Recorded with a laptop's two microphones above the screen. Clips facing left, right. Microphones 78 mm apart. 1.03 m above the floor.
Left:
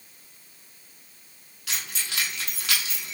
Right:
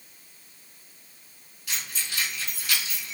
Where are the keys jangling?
90° left, 1.0 m.